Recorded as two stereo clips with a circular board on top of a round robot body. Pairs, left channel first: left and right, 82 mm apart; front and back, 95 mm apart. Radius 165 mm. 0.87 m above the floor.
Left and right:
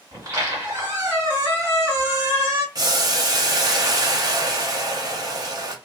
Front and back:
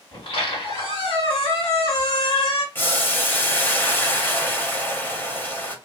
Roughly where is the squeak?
Ahead right.